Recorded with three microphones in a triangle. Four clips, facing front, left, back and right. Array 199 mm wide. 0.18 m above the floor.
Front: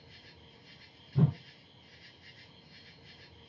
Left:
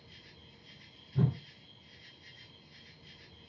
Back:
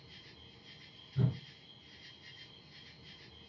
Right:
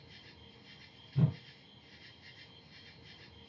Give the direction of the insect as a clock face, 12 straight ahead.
1 o'clock.